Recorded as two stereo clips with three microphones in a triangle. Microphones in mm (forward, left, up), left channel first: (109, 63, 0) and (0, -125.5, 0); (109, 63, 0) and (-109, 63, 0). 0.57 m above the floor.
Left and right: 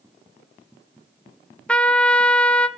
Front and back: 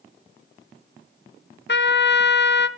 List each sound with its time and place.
1.7 s a trumpet: 25° right, 0.5 m